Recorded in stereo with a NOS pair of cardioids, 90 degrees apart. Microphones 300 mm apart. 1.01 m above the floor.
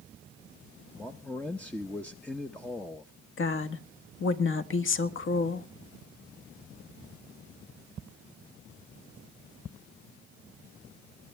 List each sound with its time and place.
0.9 s a man speaking: 5° left, 0.8 m
3.4 s a woman speaking: 40° left, 1.5 m